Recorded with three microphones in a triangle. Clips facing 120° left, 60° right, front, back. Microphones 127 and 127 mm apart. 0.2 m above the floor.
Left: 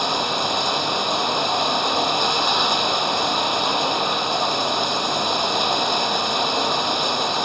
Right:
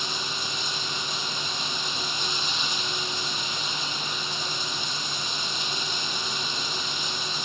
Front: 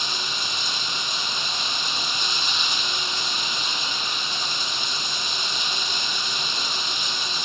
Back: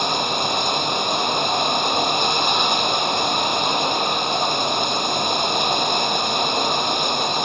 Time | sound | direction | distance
0.0 | running water | 145° left | ?